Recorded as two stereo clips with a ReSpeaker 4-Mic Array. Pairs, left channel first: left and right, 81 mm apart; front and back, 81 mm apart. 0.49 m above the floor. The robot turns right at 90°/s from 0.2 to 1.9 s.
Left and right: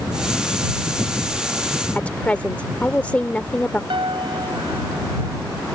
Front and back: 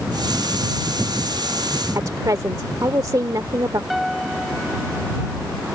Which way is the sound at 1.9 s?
160° left.